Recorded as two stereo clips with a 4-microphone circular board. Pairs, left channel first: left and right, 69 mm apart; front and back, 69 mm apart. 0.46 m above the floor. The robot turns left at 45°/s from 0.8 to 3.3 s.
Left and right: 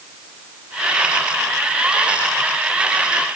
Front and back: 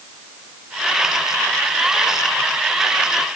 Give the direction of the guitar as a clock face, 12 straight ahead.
No guitar in this recording.